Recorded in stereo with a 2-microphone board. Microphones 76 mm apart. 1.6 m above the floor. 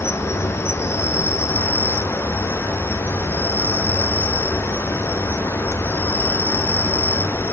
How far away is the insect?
About 0.9 m.